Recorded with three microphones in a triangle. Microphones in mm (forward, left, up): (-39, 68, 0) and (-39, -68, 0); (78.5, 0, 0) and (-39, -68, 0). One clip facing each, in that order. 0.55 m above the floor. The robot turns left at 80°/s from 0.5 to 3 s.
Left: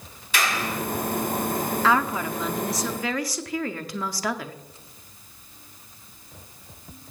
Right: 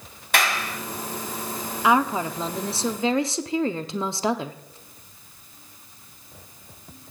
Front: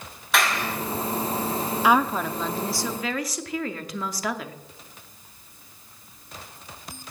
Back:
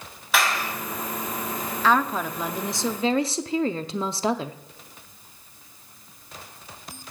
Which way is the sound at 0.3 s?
60° right.